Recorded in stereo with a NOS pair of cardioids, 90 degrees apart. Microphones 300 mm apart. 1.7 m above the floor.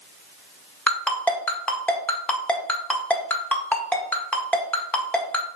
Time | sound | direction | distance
0.9 | a ringtone | 5° left | 1.8 m